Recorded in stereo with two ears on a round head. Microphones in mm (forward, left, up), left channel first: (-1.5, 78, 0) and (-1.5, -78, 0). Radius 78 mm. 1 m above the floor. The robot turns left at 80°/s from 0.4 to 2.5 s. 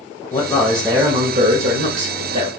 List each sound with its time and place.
0.3 s a man speaking: 25° left, 1.7 m; by 2.5 s 140° right, 1.7 m